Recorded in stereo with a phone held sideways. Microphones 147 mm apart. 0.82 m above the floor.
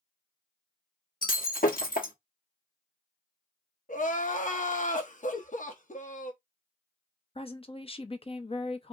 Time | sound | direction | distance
1.2 | breaking glass | 80° left | 1.1 m
3.9 | crying | 60° left (ahead or behind) | 0.8 m
5.3 | a giggle | 65° left (ahead or behind) | 1.7 m
7.3 | a woman speaking | 40° left (ahead or behind) | 0.6 m